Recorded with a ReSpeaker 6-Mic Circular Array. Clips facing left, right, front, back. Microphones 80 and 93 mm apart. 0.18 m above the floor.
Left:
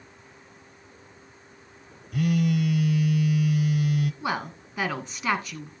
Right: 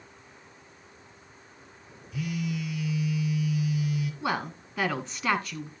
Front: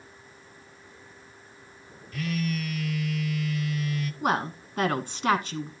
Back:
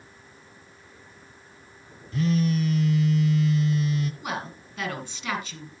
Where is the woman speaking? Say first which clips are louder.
Left 1 dB, front 6 dB; 5° right, 1.7 m.